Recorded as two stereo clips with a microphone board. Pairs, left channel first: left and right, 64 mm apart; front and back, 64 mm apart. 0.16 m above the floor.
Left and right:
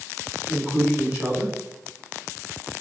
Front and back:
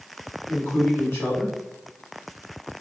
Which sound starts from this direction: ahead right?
A man speaking, at 0.5 s.